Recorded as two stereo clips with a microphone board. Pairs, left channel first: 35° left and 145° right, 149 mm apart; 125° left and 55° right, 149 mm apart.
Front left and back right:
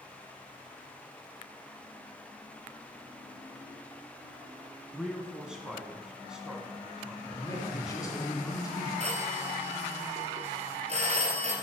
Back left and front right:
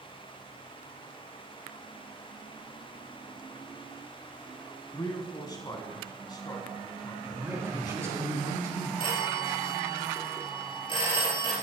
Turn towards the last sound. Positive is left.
turn(degrees=175)